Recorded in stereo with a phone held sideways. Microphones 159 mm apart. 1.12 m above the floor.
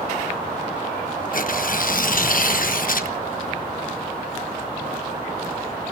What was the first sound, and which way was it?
Tearing paper, 65° left (ahead or behind).